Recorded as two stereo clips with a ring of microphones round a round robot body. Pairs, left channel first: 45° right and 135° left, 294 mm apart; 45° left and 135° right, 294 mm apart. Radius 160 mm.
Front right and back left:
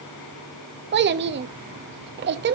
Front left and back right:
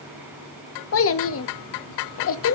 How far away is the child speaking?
About 0.9 m.